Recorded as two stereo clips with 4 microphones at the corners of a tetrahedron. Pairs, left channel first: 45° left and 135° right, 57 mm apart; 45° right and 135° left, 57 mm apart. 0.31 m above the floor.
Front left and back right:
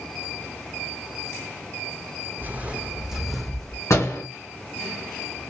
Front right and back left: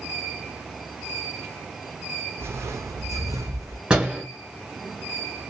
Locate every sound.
2.4 s footsteps: 175° left, 0.8 m; by 3.8 s 120° left, 1.1 m
3.9 s a door slam: 65° left, 2.5 m